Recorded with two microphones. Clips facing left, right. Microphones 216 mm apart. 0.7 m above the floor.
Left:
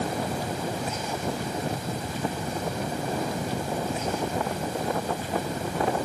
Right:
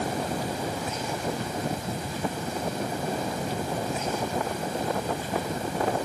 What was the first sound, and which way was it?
Only background noise.